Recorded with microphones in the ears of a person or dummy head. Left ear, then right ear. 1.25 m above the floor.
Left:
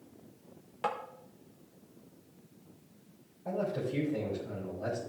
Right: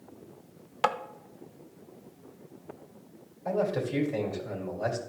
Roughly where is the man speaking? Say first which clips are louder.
Right 5 dB; right.